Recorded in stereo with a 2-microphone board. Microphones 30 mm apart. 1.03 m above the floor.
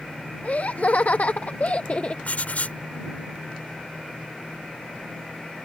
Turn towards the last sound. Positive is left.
turn(degrees=55)  # may be behind; listen again after turning